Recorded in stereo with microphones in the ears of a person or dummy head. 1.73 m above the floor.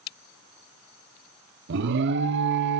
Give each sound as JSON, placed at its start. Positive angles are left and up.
{"t": 1.7, "sound": "an alarm", "side_deg": -60, "distance_m": 1.4}